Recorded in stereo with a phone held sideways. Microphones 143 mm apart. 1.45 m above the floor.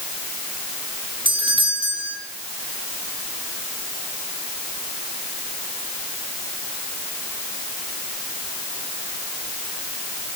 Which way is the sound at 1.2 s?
35° right (ahead or behind).